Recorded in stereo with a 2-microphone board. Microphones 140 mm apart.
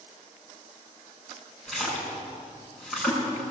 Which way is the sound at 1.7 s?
Centre (ahead or behind).